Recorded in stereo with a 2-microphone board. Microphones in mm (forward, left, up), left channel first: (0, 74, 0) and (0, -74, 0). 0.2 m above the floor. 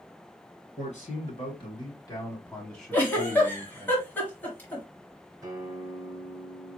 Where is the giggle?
10° left (ahead or behind), 1.7 m.